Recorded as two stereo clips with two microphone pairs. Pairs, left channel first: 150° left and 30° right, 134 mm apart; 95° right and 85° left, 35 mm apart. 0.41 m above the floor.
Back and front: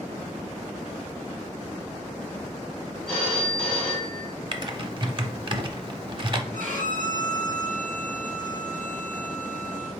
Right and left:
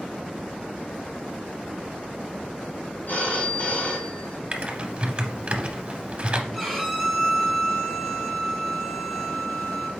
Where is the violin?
20° right, 1.9 m.